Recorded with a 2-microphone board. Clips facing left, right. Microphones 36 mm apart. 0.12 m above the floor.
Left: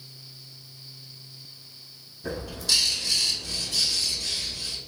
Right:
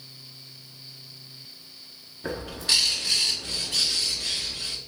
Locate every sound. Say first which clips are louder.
2.2 s a bird: right 1 dB; 35° right (ahead or behind), 0.7 m